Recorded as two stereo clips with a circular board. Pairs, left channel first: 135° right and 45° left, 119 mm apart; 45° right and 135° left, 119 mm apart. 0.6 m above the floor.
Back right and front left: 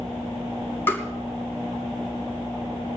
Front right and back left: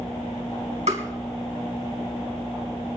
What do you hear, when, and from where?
0.9 s tapping: 155° left, 4 m